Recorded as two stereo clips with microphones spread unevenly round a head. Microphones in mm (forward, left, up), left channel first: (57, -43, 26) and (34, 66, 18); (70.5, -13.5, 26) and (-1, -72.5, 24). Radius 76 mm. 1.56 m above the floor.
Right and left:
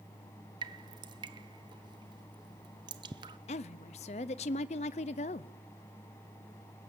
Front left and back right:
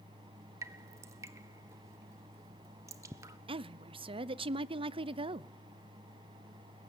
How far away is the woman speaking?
About 0.6 m.